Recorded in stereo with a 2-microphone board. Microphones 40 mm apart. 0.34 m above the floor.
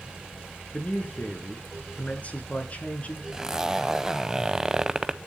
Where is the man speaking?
35° left (ahead or behind), 3.5 m.